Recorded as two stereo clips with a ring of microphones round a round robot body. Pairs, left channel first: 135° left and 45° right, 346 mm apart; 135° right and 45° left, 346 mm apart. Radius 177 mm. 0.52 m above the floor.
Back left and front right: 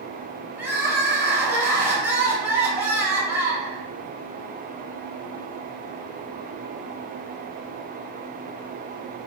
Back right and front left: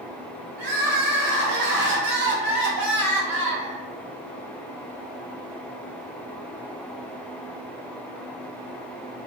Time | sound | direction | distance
0.6 | crying | 35° left | 0.8 m